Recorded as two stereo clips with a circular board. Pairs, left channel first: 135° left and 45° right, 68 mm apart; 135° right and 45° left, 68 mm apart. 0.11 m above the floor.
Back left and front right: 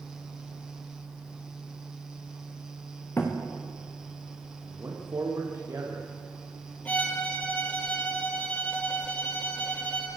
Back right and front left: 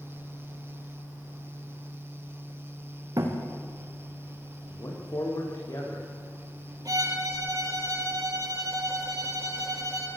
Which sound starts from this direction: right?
A man speaking, at 4.7 s.